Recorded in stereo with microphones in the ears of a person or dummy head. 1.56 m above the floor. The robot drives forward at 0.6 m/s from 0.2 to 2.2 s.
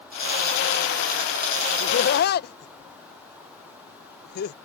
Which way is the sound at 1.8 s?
55° left (ahead or behind).